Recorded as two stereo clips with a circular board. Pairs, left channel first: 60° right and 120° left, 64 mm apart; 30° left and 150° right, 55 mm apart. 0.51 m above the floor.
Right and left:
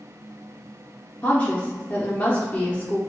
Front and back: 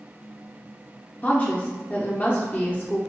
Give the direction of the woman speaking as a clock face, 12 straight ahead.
12 o'clock.